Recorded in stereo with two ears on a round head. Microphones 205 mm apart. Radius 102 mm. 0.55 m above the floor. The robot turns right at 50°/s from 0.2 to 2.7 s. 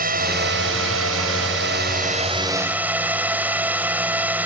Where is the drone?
135° right; by 4.5 s 10° right.